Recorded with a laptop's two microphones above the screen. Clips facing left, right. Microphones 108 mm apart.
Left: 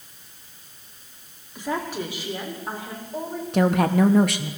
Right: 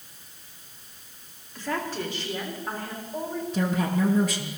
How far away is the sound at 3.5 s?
About 0.9 m.